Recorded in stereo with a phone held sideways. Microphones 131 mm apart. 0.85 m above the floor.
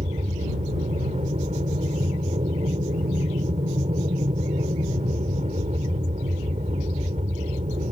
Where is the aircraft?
60° right (ahead or behind).